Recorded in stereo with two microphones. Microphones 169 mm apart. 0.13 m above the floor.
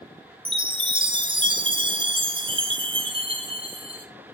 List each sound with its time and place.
0.5 s a chime: 30° right (ahead or behind), 0.8 m